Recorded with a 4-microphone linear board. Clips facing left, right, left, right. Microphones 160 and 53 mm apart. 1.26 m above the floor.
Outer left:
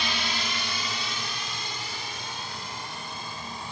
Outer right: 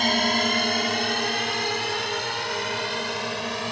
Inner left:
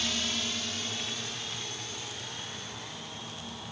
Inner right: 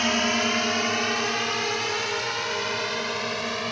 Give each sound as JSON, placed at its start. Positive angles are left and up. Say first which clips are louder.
{"t": 0.0, "sound": "a drone", "louder": "outer right 10 dB, inner right 11 dB", "side_deg": -50}